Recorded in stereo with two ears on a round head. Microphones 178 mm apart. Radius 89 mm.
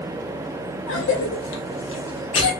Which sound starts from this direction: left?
A cough, at 0.9 s.